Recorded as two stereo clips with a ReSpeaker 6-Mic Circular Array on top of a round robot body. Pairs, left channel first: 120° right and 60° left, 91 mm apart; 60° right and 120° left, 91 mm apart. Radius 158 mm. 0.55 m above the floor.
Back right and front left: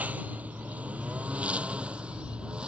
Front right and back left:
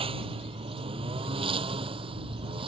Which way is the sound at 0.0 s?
135° left.